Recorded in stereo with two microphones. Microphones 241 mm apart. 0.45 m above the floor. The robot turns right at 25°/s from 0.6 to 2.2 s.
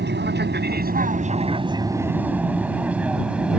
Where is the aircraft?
45° right (ahead or behind); by 3.6 s 5° right (ahead or behind).